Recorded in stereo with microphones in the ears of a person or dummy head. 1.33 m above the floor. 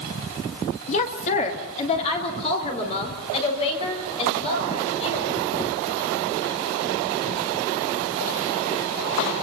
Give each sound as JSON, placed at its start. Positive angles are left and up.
{"t": 0.9, "sound": "a woman speaking", "side_deg": 40, "distance_m": 1.8}